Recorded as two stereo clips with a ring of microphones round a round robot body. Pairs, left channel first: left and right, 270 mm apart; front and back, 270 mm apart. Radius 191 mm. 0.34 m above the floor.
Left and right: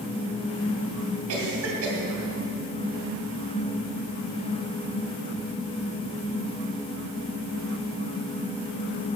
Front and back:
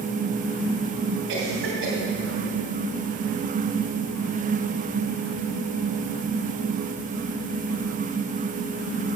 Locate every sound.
1.3 s a cough: 130° right, 2.5 m